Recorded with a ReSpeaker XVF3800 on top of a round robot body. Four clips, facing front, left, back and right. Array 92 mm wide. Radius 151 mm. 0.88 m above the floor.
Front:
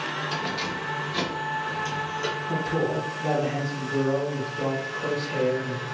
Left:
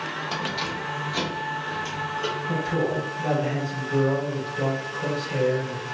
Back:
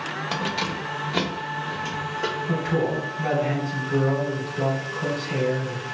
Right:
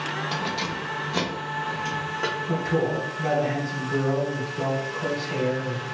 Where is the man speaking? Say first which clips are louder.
Right 1 dB, back 1 dB; 165° right, 1.6 m.